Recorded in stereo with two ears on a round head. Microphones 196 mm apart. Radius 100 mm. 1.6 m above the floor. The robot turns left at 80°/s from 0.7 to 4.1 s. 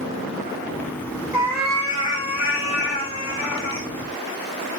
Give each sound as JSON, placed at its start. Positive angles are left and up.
{"t": 1.3, "sound": "a cat meowing", "azimuth_deg": -155, "distance_m": 1.6}